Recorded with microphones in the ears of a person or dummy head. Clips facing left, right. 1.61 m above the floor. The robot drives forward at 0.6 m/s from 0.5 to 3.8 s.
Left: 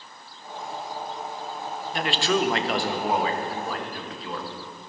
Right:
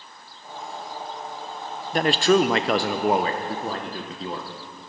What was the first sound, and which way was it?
A man speaking, 35° right (ahead or behind).